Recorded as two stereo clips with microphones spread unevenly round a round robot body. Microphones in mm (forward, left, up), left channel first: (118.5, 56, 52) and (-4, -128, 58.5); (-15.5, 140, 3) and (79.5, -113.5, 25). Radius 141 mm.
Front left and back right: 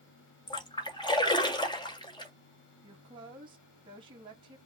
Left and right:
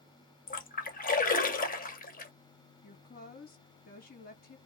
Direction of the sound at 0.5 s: 105° left.